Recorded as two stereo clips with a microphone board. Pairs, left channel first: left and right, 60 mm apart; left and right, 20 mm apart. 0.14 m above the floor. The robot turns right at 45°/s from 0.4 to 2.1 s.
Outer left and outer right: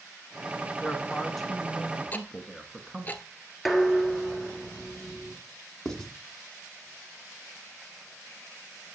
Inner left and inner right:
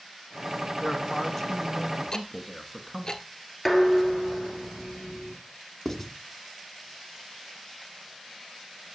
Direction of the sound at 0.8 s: 15° left (ahead or behind).